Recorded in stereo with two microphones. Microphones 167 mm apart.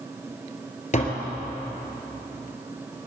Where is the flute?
No flute in this recording.